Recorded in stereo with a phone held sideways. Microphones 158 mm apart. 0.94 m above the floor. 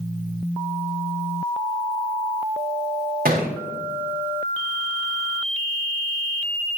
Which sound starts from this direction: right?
A thud, at 3.2 s.